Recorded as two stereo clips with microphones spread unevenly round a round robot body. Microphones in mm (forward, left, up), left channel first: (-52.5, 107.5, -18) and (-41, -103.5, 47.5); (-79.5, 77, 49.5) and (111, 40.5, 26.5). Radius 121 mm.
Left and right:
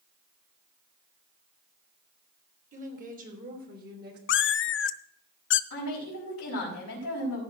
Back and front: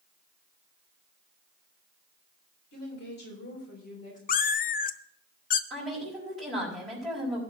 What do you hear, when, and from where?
2.7 s a woman speaking: 145° right, 4 m; by 4.2 s 135° right, 3 m
4.3 s a cat meowing: 135° left, 0.5 m
5.7 s a woman speaking: 80° left, 4.5 m